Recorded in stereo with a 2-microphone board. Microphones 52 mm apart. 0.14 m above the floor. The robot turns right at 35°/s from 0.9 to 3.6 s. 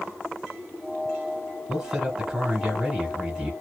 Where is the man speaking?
15° right (ahead or behind), 1.4 m; by 3.5 s 20° right (ahead or behind), 1.4 m.